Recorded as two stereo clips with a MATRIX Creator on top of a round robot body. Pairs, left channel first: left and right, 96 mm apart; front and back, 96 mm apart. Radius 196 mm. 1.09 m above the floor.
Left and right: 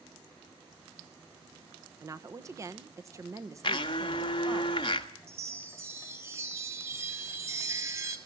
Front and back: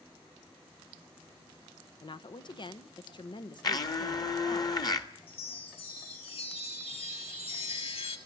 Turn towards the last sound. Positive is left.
turn(degrees=-25)